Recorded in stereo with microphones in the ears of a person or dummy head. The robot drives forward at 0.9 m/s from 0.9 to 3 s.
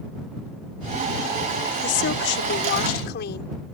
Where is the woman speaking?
60° left (ahead or behind); by 3.5 s 55° left (ahead or behind).